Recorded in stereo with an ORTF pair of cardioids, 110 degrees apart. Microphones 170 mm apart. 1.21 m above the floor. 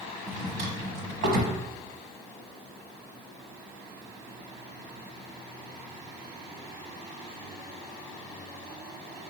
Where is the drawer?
70° right, 1.1 m.